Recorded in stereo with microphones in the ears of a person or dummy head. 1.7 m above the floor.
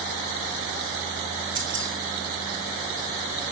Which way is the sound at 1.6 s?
30° right (ahead or behind).